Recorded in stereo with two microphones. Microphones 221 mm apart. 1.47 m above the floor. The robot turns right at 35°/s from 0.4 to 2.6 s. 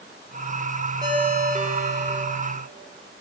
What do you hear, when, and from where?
1.0 s a ringtone: 160° right, 2 m; by 2.2 s 120° right, 2 m